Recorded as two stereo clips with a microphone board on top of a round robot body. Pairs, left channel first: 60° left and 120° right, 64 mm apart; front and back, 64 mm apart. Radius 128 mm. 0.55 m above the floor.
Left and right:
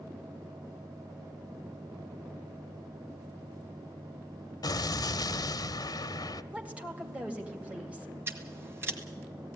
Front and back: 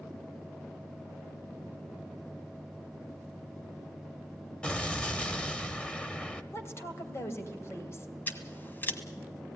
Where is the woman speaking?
50° right, 3 m.